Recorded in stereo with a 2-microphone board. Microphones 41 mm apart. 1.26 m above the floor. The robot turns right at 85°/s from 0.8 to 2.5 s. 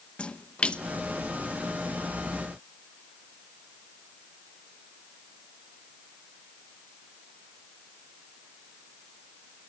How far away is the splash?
About 0.9 m.